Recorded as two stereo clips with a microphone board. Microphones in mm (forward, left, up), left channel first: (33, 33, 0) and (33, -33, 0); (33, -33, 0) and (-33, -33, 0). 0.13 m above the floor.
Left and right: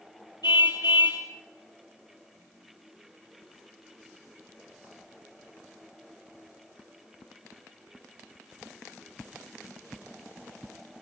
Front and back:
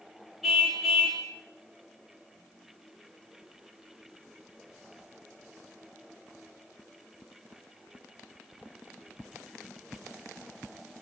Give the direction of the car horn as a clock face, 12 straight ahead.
9 o'clock.